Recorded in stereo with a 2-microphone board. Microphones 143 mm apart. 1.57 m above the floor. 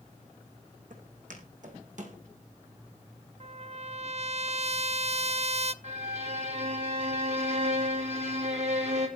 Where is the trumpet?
50° right (ahead or behind), 0.6 m.